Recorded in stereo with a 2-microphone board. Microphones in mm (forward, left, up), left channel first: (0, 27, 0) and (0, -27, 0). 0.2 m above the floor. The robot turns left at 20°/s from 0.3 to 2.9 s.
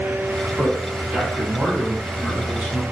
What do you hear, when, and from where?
0.6 s a man speaking: 20° right (ahead or behind), 1.3 m; by 2.8 s 25° right (ahead or behind), 1.3 m